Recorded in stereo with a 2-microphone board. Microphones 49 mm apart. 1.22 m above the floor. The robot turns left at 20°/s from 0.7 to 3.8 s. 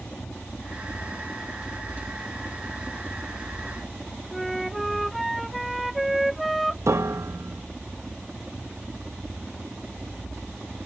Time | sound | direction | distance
0.0 | a helicopter | 35° left | ?
4.3 | a flute | centre (ahead or behind) | ?
6.9 | a piano | 80° right | ?